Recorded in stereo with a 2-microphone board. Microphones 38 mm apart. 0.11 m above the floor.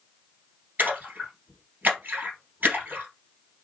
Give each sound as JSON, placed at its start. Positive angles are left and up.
{"t": 0.8, "sound": "a splash", "side_deg": -50, "distance_m": 2.5}